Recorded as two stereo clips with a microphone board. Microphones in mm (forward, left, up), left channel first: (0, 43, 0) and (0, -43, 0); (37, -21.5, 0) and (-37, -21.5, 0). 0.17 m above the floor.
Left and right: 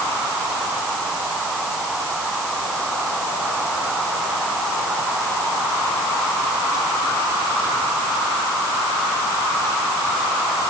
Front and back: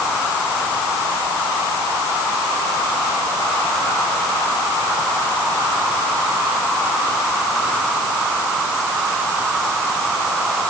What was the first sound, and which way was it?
Only background noise.